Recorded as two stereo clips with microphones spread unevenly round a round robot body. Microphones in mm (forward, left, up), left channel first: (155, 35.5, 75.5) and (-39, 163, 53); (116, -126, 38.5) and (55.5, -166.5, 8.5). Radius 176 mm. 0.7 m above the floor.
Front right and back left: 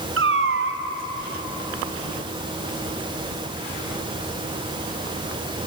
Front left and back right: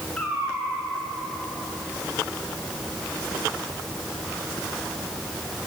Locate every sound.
0.2 s a cat meowing: 110° left, 2 m